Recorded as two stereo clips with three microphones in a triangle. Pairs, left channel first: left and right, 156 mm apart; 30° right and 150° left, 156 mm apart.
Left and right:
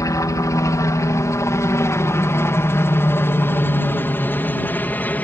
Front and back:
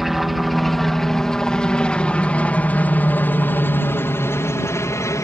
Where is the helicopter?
65° left; by 5.2 s 20° left.